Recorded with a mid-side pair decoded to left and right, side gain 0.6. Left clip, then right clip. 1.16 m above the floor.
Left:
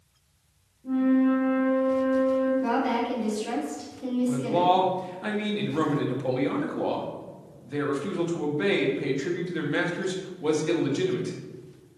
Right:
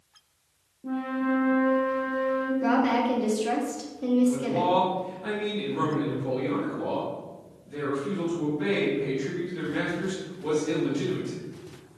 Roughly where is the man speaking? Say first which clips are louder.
Left 2 dB; ahead left.